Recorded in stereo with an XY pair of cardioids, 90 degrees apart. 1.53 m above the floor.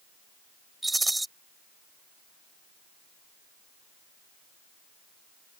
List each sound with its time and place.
0.8 s a rattle: 15° right